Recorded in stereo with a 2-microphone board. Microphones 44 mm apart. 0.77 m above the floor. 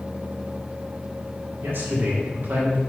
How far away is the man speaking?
About 2.0 m.